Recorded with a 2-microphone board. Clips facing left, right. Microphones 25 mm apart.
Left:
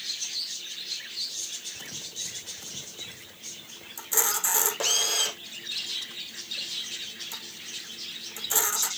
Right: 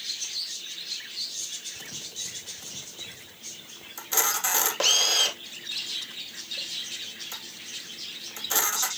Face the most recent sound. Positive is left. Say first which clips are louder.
# right 1 dB
turn(degrees=-30)  # may be behind; listen again after turning